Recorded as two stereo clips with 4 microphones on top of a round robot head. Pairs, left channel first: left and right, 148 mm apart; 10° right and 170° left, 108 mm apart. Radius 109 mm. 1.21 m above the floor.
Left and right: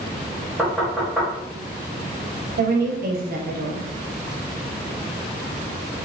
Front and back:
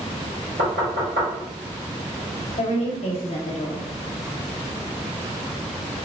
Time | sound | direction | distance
0.6 | knocking | 175° right | 1.3 m
2.6 | a woman speaking | 55° right | 0.5 m